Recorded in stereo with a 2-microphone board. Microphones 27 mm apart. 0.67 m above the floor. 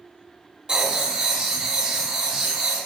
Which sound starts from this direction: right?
Writing, at 0.7 s.